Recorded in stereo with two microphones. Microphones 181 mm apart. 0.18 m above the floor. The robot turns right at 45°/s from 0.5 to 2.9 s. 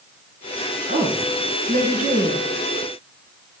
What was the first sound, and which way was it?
A woman speaking, 130° right.